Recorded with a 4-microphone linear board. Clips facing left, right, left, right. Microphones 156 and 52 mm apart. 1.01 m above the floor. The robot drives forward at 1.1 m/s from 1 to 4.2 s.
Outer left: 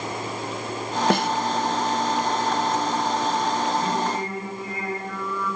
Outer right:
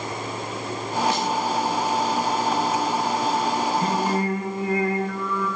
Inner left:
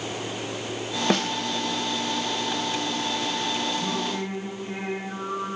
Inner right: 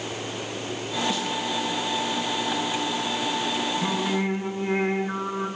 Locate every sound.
1.1 s a snare drum: 55° left (ahead or behind), 0.6 m; by 1.3 s 60° left (ahead or behind), 0.5 m
3.8 s singing: 80° right, 3.5 m; by 5.5 s 75° right (ahead or behind), 3.5 m